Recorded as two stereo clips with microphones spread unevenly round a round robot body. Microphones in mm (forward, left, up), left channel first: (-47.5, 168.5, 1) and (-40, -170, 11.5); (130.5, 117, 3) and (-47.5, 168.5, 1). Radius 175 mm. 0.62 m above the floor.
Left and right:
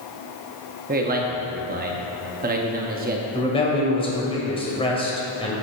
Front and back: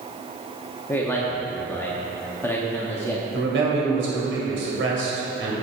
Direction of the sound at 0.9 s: 80° right.